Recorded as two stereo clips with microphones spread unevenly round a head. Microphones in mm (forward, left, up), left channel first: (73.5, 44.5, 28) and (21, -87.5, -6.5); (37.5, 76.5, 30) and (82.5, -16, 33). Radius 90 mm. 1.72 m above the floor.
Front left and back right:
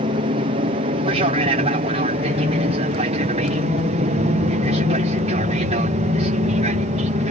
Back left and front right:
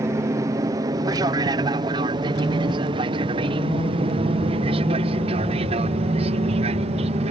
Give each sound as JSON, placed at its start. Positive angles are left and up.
{"t": 0.0, "sound": "an aircraft", "azimuth_deg": -120}